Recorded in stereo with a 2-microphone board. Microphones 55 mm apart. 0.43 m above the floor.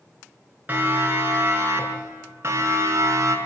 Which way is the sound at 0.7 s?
35° right (ahead or behind).